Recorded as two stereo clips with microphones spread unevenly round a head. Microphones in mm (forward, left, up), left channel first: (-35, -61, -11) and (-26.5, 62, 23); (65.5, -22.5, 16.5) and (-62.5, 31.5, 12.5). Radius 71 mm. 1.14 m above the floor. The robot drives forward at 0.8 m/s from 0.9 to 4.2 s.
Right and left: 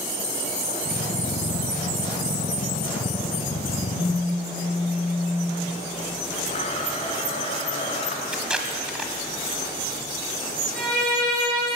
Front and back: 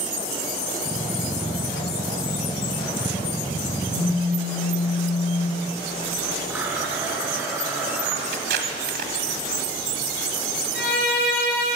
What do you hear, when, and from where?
3.9 s a phone buzzing: 45° left, 6.5 m
6.5 s a blender: 125° right, 2 m
8.3 s tape being pulled: 155° left, 1.6 m
10.7 s a violin: 5° right, 5 m